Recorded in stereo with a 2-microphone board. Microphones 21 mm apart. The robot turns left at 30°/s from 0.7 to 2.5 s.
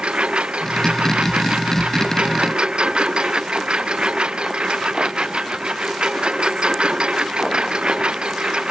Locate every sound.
0.0 s a lawn mower: 70° right; by 8.7 s 125° right